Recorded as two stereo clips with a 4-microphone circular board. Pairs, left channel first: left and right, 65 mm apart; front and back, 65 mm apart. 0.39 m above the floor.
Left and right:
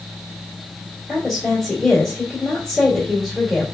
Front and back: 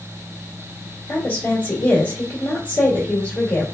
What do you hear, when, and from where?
1.1 s a woman speaking: 10° left, 1.5 m